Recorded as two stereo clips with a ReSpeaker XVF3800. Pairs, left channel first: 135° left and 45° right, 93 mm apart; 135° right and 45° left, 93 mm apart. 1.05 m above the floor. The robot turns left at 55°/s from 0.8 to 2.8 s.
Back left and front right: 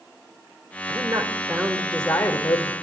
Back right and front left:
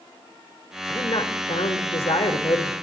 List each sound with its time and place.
0.9 s a woman speaking: 80° right, 4 m; by 2.7 s straight behind, 4 m